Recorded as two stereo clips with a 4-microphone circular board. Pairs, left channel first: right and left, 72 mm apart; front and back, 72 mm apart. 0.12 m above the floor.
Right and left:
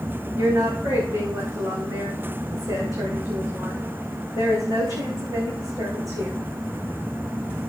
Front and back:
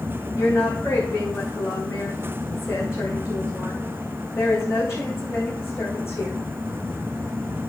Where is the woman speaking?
55° left, 6.5 m.